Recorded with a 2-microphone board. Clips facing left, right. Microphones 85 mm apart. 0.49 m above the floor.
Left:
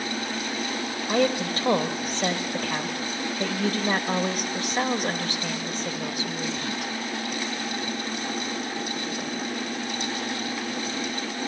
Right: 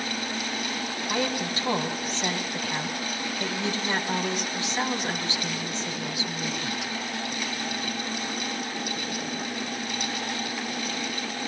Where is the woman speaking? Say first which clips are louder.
Left 6 dB; 50° left (ahead or behind), 2.5 m.